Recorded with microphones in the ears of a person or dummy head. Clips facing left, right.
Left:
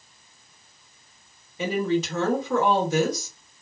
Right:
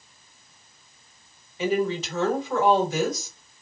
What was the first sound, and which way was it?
A woman speaking, 70° left (ahead or behind).